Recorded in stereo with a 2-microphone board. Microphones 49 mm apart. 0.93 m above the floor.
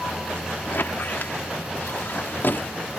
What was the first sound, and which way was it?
A squeak, 45° left (ahead or behind).